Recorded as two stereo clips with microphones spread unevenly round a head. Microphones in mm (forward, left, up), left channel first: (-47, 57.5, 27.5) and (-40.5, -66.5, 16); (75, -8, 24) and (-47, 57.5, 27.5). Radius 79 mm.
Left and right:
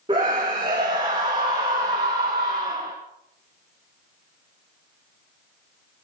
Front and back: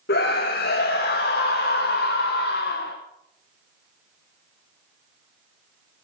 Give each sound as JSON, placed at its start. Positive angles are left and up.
{"t": 0.1, "sound": "a scream", "azimuth_deg": -20, "distance_m": 1.9}